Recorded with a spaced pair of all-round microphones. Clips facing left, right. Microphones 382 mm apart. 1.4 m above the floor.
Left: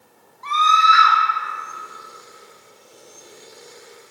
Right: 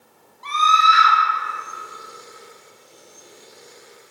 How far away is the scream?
About 0.6 m.